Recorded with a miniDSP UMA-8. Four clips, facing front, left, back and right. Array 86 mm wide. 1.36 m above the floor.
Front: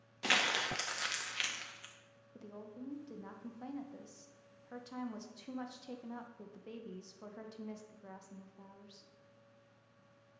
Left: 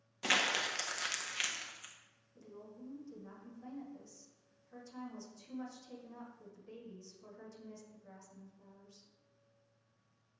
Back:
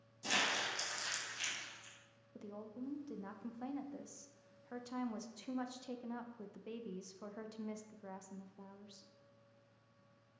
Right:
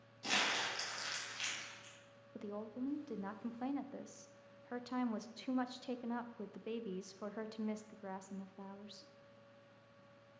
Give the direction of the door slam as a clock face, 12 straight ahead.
I don't hear a door slam.